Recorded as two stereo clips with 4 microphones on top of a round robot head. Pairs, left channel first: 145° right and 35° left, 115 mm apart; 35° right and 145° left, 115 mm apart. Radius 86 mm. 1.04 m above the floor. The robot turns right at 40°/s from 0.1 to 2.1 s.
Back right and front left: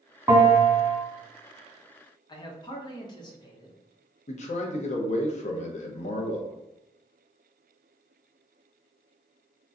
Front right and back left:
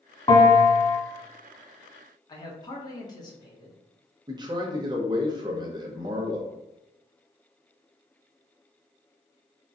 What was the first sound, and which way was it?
A bell, 15° right.